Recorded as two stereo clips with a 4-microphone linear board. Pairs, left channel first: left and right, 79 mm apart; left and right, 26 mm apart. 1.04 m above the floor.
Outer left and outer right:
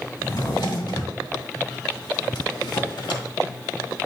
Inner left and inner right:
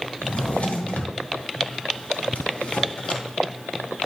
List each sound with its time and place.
0.2 s a drawer: 65° left (ahead or behind), 2.5 m